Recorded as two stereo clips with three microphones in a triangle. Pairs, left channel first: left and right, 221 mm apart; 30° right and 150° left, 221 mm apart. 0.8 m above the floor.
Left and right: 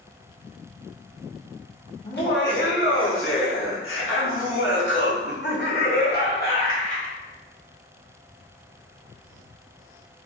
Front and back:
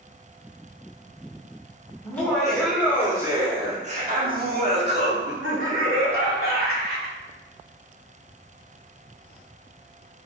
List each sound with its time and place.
2.0 s laughter: 50° left, 1.4 m; by 7.2 s 140° left, 2.5 m